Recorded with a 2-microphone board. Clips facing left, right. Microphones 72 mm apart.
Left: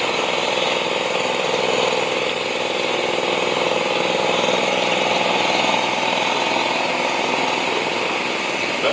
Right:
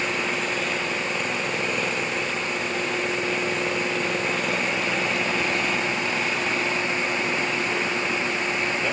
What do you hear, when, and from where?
0.0 s an engine running: 80° left